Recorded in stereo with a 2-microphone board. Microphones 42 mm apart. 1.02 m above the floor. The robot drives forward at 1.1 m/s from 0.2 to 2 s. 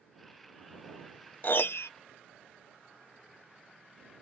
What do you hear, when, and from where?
1.4 s a piano: 45° left (ahead or behind); by 1.9 s 75° left (ahead or behind)